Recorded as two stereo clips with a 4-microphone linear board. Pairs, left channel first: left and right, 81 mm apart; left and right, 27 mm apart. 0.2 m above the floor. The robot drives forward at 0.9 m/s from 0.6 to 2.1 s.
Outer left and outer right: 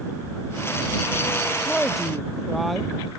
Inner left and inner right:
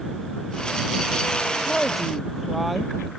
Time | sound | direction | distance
1.7 | a woman speaking | centre (ahead or behind) | ?